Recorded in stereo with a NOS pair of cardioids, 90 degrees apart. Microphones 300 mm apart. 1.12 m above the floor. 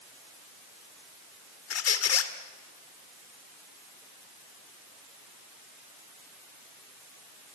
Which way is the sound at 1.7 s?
55° left.